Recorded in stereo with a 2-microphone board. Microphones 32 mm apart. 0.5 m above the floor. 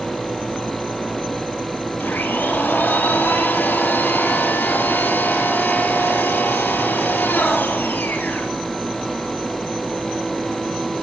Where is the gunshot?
I don't hear a gunshot.